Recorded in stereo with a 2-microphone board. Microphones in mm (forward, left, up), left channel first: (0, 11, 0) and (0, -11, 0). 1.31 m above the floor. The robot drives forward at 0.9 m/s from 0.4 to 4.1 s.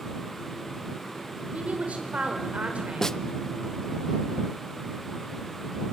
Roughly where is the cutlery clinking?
No cutlery clinking in this recording.